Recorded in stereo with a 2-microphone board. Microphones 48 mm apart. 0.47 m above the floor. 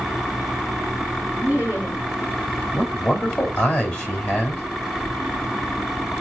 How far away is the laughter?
About 1.6 m.